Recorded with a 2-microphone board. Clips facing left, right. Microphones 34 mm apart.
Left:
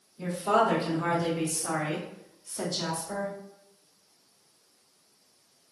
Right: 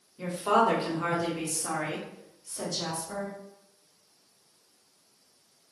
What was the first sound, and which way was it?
A woman speaking, 35° right (ahead or behind).